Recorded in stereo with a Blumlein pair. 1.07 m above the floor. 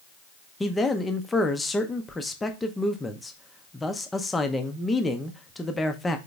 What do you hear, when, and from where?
0.6 s a man speaking: 10° left, 0.7 m